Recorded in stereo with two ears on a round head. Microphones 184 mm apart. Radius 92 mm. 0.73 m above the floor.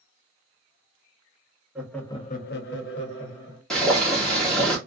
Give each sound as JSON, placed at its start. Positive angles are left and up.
{"t": 1.8, "sound": "laughter", "side_deg": -5, "distance_m": 0.7}
{"t": 3.7, "sound": "boiling", "side_deg": 0, "distance_m": 1.0}